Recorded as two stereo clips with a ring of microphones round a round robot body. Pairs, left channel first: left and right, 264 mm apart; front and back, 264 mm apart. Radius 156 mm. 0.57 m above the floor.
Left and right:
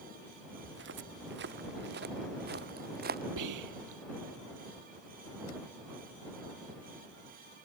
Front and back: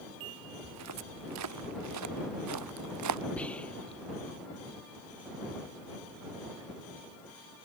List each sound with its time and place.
0.6 s footsteps: 145° right; by 3.2 s 150° right
3.4 s whispering: 85° right